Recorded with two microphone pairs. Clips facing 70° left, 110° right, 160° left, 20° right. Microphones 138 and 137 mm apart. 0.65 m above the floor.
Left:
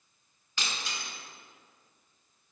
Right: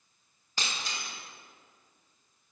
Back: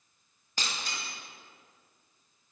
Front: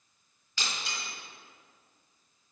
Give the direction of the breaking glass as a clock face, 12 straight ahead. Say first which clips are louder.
Right 1 dB, even; 5 o'clock.